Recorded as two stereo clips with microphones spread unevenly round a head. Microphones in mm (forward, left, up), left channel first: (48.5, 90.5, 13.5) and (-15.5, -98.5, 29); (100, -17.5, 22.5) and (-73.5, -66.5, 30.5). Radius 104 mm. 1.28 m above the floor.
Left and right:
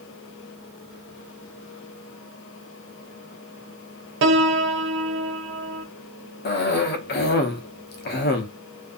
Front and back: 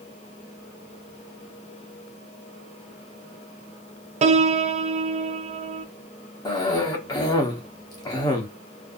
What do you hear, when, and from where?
4.2 s a piano: 120° right, 0.5 m
6.5 s a cough: 80° left, 0.7 m